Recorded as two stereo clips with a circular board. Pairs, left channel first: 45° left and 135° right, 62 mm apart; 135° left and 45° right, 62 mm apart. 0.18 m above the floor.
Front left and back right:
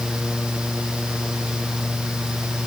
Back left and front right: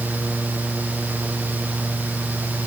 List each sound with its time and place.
Only background noise.